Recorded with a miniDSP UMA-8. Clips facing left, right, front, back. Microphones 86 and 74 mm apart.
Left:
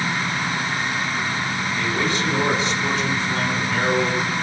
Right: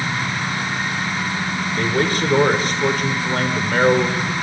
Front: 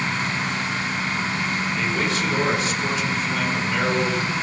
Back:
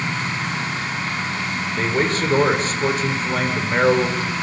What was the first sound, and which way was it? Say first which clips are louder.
A man speaking: right 5 dB, back 7 dB; 130° right.